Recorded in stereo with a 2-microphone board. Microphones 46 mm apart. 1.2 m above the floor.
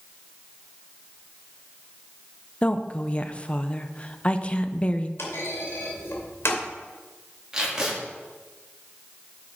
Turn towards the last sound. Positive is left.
turn(degrees=-15)  # may be behind; listen again after turning